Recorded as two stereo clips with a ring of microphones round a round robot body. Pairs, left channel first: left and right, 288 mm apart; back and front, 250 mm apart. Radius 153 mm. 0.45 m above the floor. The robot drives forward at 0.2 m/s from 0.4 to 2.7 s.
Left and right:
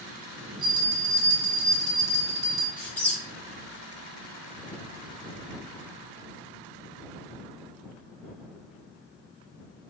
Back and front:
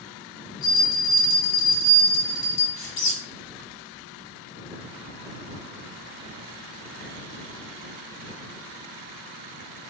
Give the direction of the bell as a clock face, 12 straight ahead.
5 o'clock.